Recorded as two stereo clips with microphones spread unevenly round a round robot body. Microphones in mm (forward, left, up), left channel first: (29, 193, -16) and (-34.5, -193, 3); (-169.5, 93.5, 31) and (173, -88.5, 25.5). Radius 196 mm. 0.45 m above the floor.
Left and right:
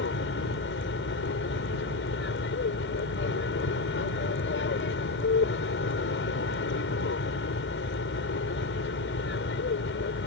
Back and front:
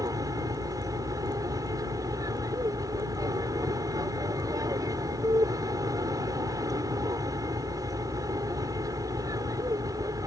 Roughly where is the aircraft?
Ahead left.